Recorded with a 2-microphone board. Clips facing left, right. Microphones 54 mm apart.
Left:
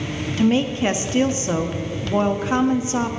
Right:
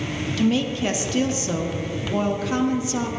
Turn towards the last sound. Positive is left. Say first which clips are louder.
# left 3 dB
turn(degrees=25)  # may be behind; listen again after turning